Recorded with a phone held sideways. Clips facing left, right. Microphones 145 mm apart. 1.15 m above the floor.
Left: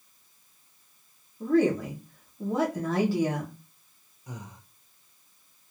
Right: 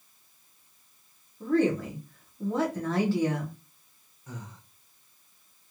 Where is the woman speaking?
10° left (ahead or behind), 0.8 m.